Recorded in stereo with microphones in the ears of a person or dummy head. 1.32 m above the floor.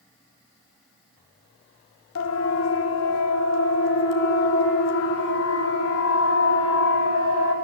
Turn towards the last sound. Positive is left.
turn(degrees=80)